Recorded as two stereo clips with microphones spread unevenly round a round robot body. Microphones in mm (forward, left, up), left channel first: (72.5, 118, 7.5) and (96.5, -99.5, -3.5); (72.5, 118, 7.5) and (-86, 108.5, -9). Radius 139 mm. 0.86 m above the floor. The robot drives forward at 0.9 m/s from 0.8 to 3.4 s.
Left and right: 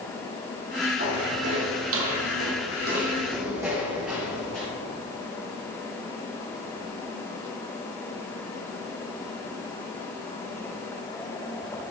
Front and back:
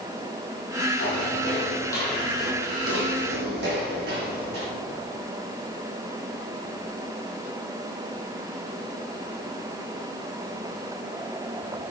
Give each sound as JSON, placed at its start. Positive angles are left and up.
{"t": 1.0, "sound": "footsteps", "azimuth_deg": -40, "distance_m": 3.5}